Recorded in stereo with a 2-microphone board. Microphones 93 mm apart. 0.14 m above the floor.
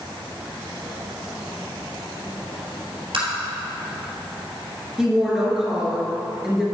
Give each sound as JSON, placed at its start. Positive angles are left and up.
{"t": 3.1, "sound": "tapping", "side_deg": -65, "distance_m": 2.5}
{"t": 5.0, "sound": "a woman speaking", "side_deg": -5, "distance_m": 2.5}